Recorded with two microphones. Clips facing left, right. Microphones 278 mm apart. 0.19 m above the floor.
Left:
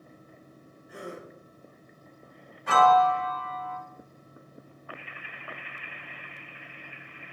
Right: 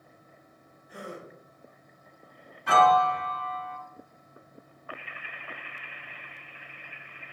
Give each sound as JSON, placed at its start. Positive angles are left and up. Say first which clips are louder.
{"t": 0.9, "sound": "a gasp", "louder": "left 1 dB", "side_deg": 60, "distance_m": 1.3}
{"t": 2.7, "sound": "a piano", "louder": "left 1 dB", "side_deg": 5, "distance_m": 1.1}